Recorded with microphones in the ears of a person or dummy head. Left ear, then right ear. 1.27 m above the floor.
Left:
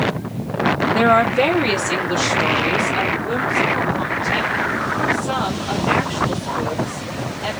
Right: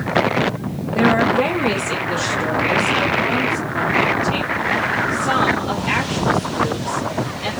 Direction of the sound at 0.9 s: 50° left (ahead or behind).